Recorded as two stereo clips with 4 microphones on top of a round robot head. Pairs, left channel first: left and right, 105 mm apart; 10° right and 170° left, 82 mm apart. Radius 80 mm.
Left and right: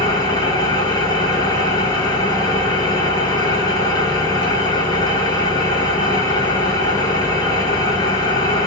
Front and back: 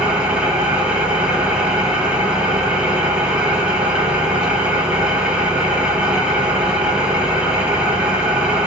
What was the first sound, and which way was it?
An engine running, 95° left.